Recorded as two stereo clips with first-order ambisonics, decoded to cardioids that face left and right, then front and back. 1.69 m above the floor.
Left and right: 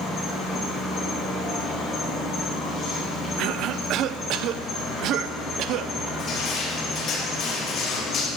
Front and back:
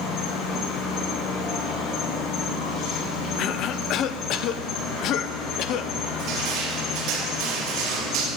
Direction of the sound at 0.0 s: 35° left.